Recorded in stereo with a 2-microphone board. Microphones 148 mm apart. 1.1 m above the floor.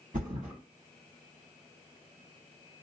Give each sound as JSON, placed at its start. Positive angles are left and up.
{"t": 0.1, "sound": "a thud", "side_deg": -70, "distance_m": 2.5}